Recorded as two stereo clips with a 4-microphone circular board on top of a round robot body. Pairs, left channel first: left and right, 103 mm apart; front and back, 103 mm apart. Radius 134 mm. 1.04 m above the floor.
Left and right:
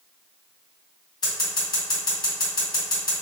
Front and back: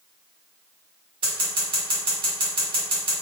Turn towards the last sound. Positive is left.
turn(degrees=140)